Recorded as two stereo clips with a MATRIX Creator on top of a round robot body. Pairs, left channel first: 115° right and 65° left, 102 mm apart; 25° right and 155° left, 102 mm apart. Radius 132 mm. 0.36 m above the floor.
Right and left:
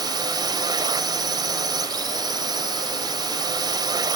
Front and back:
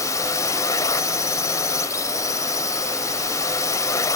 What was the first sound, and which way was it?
A drone, 30° left.